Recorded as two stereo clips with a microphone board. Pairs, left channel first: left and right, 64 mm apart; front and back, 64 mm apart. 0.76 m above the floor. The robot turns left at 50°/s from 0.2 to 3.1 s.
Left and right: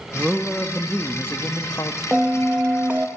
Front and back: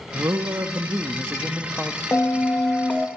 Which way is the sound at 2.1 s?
10° right.